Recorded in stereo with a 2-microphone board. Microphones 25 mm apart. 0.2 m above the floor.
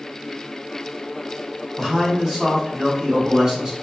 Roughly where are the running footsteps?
No running footsteps in this recording.